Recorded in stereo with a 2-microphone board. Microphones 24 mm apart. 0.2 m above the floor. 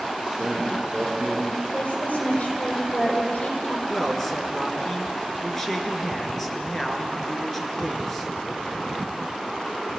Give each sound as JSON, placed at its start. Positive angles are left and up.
{"t": 0.2, "sound": "a man speaking", "side_deg": -5, "distance_m": 7.5}
{"t": 1.7, "sound": "a woman speaking", "side_deg": 70, "distance_m": 7.0}
{"t": 3.9, "sound": "a man speaking", "side_deg": 10, "distance_m": 3.0}